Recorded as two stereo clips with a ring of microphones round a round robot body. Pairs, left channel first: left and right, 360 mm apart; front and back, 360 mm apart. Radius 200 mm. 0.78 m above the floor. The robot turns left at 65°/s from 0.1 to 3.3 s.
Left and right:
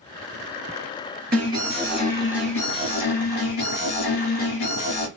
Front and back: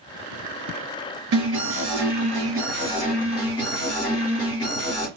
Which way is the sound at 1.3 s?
150° right.